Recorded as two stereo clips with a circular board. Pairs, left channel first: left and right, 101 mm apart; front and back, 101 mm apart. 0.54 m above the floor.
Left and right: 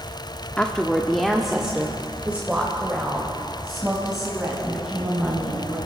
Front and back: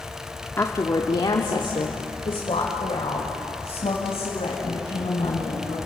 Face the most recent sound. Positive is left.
turn(degrees=-20)